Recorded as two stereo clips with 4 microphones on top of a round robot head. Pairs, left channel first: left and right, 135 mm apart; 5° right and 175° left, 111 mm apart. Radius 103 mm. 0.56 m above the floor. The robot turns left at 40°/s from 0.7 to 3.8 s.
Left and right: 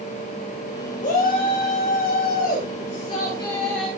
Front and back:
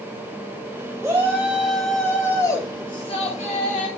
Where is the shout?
110° left, 2.5 m; by 3.9 s straight ahead, 2.5 m.